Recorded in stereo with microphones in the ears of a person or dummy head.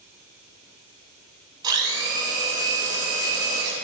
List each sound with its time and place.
1.6 s a blender: 25° right (ahead or behind), 3.5 m